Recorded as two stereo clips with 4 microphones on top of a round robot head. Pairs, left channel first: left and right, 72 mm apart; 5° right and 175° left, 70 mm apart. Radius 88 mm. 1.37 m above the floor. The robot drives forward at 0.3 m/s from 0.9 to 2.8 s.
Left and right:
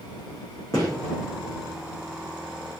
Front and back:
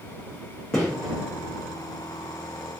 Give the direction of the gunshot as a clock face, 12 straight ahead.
10 o'clock.